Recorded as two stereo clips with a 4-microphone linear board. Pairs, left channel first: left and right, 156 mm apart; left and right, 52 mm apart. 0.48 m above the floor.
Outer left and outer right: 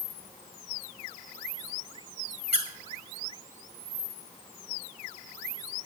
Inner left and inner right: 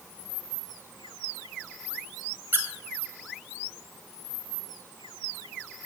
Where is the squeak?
40° right (ahead or behind), 2 m.